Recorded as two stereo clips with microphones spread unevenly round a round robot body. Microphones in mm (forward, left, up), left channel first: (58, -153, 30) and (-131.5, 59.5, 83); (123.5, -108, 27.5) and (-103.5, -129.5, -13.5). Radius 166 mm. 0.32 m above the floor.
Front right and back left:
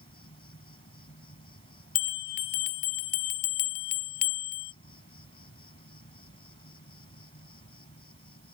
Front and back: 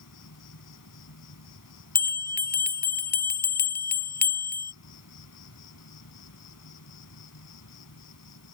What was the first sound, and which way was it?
An insect, 20° left.